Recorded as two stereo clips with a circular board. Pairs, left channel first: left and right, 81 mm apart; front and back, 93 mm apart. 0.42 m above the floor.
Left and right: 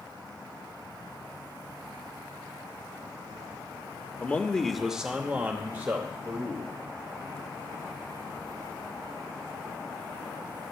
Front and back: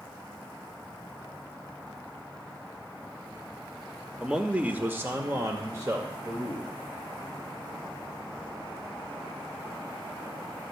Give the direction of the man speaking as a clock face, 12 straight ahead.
8 o'clock.